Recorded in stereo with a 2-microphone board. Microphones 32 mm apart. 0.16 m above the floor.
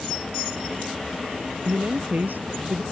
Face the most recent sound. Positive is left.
turn(degrees=-70)  # may be behind; listen again after turning